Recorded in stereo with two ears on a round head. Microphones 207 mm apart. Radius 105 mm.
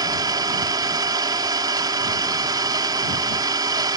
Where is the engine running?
20° right (ahead or behind).